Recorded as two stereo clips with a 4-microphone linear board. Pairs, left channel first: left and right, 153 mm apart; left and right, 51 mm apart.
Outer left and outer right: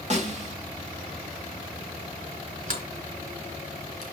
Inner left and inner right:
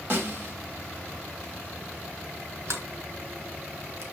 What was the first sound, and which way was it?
A snare drum, 50° right (ahead or behind).